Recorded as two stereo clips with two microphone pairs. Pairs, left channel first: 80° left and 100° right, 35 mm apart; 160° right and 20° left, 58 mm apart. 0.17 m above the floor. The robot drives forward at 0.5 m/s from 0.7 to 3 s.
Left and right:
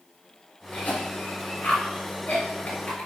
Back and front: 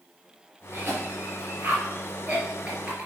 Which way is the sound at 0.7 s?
65° left.